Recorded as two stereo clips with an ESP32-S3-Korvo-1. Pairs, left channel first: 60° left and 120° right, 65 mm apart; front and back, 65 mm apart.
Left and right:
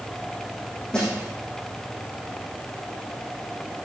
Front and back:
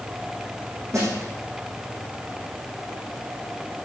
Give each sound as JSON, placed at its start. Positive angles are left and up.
{"t": 0.9, "sound": "a snare drum", "azimuth_deg": 140, "distance_m": 6.0}